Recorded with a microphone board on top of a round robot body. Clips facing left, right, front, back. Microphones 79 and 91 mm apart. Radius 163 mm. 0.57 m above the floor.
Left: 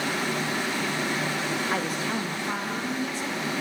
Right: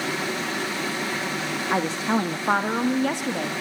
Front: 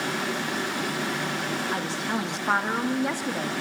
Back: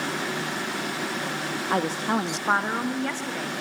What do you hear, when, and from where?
1.7 s a woman speaking: 160° right, 1.1 m; by 3.5 s 70° right, 1.7 m